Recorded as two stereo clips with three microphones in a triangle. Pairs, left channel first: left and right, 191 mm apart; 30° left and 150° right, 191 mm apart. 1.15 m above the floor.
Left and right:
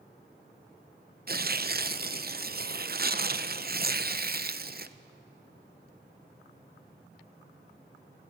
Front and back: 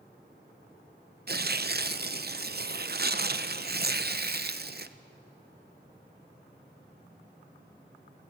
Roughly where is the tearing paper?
Behind right.